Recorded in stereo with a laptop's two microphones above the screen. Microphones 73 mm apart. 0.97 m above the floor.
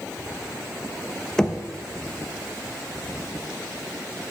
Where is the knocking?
10° left (ahead or behind), 0.8 m.